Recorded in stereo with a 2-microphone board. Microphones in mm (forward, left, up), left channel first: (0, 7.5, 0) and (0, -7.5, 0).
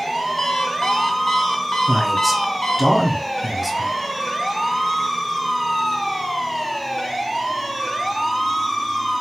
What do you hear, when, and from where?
0.4 s an alarm clock: 60° left (ahead or behind), 1.0 m
1.9 s a man speaking: 5° right (ahead or behind), 1.1 m